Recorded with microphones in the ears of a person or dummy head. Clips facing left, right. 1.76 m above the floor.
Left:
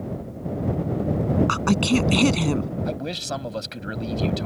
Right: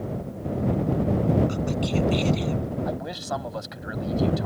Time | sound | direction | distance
1.5 | a woman speaking | 80° left | ?
2.9 | a man speaking | 35° left (ahead or behind) | ?